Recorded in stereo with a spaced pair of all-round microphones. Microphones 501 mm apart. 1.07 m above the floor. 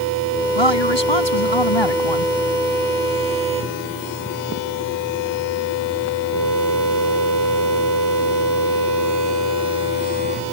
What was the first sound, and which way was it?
A woman speaking, 60° left (ahead or behind).